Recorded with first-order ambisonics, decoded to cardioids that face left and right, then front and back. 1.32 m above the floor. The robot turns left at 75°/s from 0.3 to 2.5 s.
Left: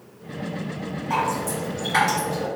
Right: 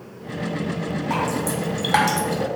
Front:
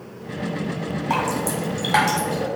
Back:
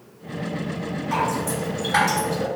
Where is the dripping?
Straight ahead, 1.3 m; by 2.5 s 105° right, 1.3 m.